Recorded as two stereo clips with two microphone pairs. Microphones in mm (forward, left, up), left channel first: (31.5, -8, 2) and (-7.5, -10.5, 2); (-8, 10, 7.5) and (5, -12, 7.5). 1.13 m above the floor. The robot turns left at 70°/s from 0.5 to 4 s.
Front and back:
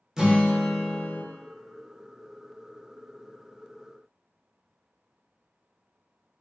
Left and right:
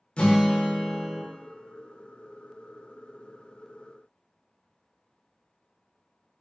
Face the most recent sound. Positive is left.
turn(degrees=-130)